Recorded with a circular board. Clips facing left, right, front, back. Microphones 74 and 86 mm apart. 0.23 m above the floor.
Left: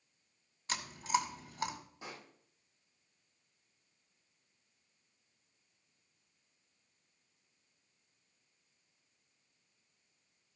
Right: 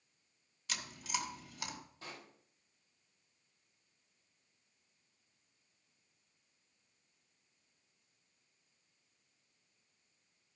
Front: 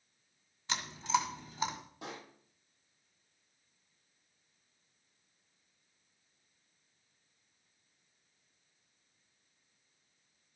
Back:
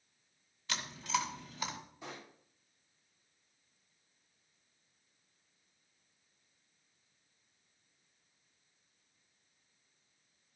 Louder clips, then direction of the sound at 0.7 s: Left 8 dB, front 4 dB; 50° left.